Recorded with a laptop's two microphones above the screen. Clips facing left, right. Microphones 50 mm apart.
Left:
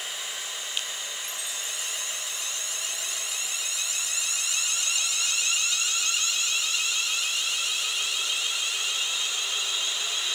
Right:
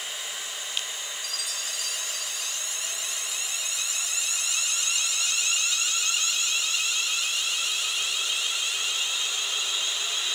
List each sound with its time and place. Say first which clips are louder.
1.2 s a chime: right 1 dB; 25° left (ahead or behind)